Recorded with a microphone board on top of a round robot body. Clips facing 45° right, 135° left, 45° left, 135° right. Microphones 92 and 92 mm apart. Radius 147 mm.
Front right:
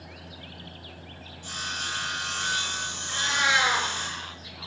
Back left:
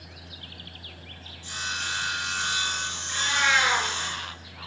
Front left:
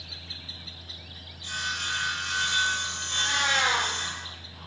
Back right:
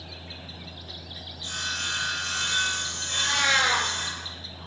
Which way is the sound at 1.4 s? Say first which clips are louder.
Back left 2 dB, front left 1 dB; 80° right.